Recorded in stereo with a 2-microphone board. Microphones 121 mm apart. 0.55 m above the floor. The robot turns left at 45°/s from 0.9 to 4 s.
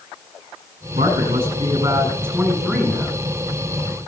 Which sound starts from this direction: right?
A man speaking, at 0.9 s.